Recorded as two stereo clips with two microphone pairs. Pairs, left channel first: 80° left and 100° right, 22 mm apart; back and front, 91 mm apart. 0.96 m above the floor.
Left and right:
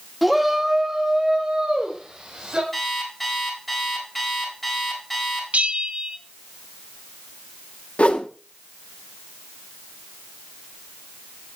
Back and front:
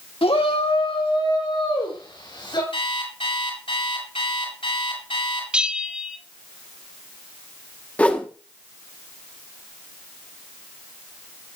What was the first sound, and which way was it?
A shout, 175° left.